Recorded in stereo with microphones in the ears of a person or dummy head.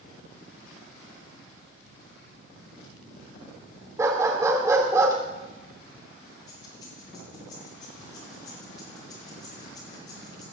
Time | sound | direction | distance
4.0 | a dog barking | 10° right (ahead or behind) | 2.5 m
6.5 | keys jangling | 35° left (ahead or behind) | 5.5 m